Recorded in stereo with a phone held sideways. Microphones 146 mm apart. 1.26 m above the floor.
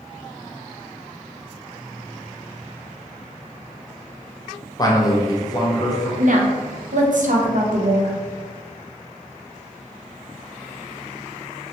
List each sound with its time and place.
4.8 s a man speaking: 25° left (ahead or behind), 0.6 m
6.2 s a woman speaking: 65° right (ahead or behind), 0.6 m